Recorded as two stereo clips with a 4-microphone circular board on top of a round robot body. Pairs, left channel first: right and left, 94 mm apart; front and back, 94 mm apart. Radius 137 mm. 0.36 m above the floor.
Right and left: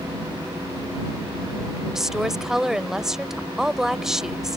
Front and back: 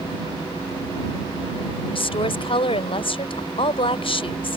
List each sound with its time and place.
1.9 s a woman speaking: 5° left